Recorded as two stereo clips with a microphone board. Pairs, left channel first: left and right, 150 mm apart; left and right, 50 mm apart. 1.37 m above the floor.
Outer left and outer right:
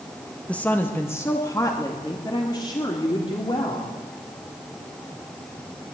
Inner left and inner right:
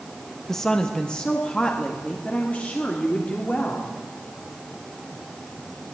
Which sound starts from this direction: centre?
A woman speaking, at 0.5 s.